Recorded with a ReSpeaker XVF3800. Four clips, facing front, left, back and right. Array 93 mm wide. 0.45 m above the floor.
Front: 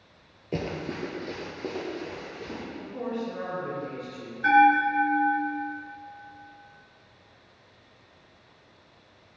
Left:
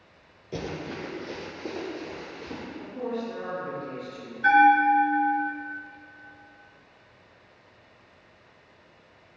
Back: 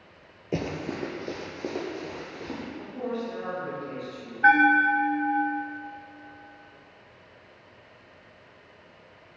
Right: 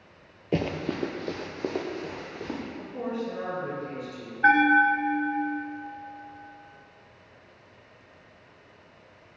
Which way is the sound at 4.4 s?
135° right.